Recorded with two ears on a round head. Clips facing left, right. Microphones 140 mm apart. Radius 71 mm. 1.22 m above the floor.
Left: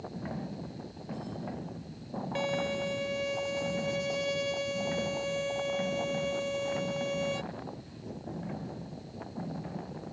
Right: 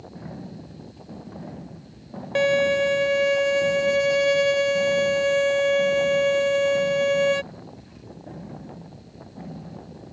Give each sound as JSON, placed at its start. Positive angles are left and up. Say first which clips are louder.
{"t": 2.4, "sound": "a violin", "louder": "right 13 dB", "side_deg": -65}